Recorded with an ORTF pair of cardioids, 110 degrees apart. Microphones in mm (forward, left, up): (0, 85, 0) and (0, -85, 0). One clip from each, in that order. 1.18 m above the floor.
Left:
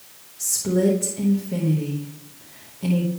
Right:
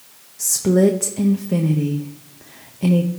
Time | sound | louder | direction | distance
0.4 | a woman speaking | right 5 dB | 40° right | 1.0 m